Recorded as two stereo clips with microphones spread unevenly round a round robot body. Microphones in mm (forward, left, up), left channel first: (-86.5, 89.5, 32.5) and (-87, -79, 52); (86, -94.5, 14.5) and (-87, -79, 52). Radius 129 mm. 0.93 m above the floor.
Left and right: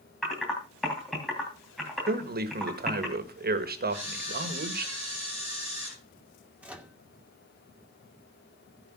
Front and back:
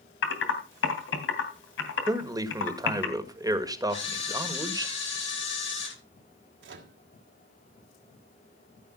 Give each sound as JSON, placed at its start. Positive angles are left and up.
{"t": 0.2, "sound": "typing on a keyboard", "azimuth_deg": 0, "distance_m": 2.5}
{"t": 2.1, "sound": "a man speaking", "azimuth_deg": -110, "distance_m": 1.7}
{"t": 3.9, "sound": "a camera shutter", "azimuth_deg": -5, "distance_m": 10.0}
{"t": 6.6, "sound": "a microwave", "azimuth_deg": -175, "distance_m": 2.0}